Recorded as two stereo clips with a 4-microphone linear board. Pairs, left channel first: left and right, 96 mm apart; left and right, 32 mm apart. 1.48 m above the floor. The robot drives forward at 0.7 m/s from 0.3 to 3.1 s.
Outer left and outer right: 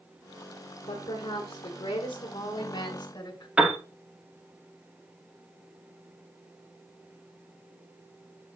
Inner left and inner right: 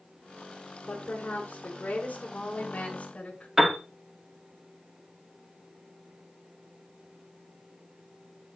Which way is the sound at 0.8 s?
80° left.